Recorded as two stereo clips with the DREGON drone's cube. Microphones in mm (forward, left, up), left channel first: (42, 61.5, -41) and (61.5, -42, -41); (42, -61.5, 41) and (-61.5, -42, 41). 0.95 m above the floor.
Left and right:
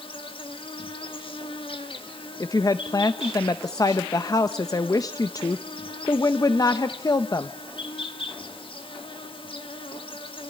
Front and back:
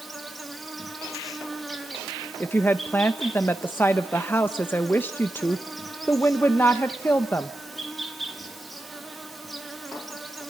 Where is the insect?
80° left, 1.7 m.